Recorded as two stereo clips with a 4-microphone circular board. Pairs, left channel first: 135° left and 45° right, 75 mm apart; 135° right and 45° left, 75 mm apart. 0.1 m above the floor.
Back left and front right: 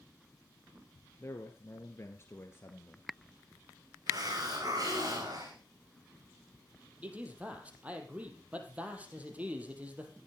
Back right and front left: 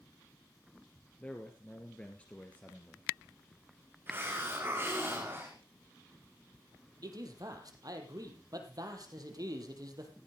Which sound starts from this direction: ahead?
A hiss, at 4.1 s.